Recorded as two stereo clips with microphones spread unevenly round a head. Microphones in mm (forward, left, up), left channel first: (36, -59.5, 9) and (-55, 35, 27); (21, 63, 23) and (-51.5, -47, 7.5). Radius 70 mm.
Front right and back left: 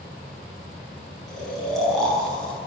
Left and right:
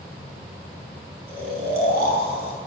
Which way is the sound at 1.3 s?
135° right.